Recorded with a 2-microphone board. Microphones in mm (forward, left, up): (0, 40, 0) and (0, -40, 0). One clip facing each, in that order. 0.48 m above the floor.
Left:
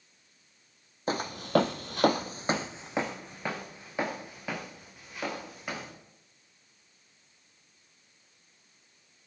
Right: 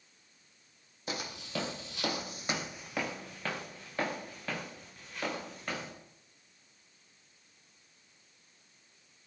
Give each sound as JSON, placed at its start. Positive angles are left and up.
{"t": 1.1, "sound": "footsteps", "side_deg": 45, "distance_m": 1.2}